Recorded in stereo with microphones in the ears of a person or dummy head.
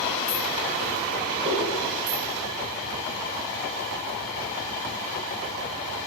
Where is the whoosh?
45° right (ahead or behind), 4.5 m.